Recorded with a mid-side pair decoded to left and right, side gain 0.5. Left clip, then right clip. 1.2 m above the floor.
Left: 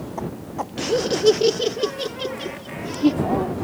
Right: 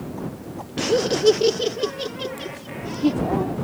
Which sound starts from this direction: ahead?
Laughter, at 0.8 s.